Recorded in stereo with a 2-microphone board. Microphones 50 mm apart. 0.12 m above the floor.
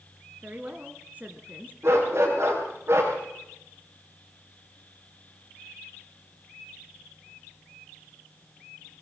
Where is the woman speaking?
30° right (ahead or behind), 1.6 m.